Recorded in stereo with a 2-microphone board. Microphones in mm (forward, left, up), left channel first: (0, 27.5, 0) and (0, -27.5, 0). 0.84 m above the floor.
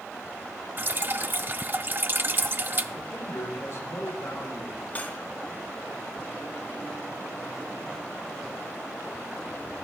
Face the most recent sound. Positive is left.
turn(degrees=30)  # may be behind; listen again after turning